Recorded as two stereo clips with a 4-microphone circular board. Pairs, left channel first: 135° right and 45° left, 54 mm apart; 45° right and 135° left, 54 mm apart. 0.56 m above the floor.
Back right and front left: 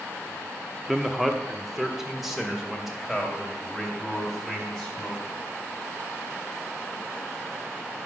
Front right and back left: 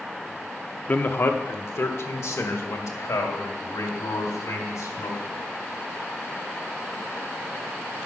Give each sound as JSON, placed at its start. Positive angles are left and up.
{"t": 0.9, "sound": "a man speaking", "azimuth_deg": -35, "distance_m": 0.7}